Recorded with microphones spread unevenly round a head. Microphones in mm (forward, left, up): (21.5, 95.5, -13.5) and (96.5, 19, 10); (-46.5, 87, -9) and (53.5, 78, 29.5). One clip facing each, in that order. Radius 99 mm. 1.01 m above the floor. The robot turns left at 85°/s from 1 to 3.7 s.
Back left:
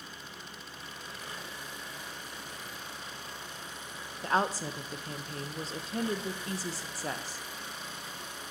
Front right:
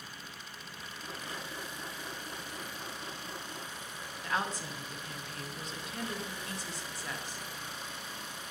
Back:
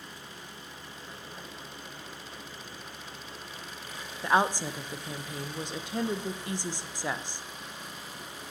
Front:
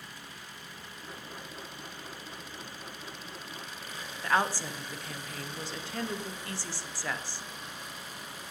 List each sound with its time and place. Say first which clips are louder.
4.2 s a woman speaking: back left 6 dB, back 3 dB; 145° left, 0.6 m